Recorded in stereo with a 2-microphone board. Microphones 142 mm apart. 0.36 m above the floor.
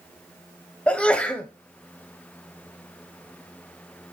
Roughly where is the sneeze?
Centre.